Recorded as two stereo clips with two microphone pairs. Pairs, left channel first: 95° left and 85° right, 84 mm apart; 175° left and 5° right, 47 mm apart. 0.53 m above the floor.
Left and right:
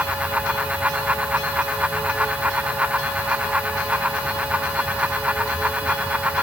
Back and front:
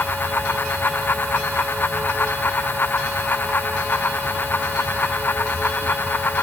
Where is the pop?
No pop in this recording.